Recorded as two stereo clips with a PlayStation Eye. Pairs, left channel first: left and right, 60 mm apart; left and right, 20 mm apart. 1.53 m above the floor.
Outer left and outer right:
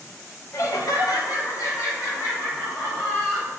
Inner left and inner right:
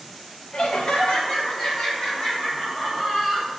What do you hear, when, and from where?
0.5 s laughter: 55° left (ahead or behind), 0.6 m; by 3.5 s 50° left (ahead or behind), 3 m